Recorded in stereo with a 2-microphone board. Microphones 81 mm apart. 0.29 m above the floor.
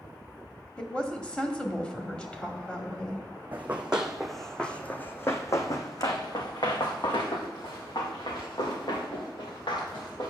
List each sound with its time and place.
0.8 s a woman speaking: 15° left (ahead or behind), 1.2 m
3.5 s running footsteps: 20° right (ahead or behind), 1.1 m; by 10.3 s 85° left, 3 m